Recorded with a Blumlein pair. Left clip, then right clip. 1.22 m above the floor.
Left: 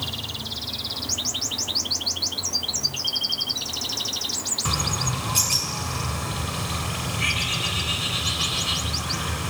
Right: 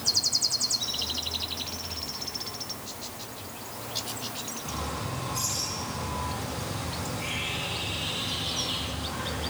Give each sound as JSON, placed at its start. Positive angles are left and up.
{"t": 4.7, "sound": "a bird", "azimuth_deg": 60, "distance_m": 6.5}